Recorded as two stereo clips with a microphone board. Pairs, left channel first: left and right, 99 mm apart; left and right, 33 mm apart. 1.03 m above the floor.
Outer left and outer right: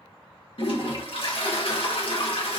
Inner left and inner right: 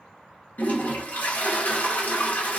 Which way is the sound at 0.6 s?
65° left (ahead or behind).